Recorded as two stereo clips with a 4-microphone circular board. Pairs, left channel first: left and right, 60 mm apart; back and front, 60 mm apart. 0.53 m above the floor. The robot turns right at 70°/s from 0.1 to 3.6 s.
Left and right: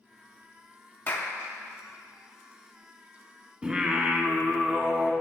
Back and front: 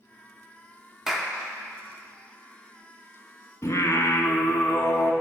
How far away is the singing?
About 0.6 m.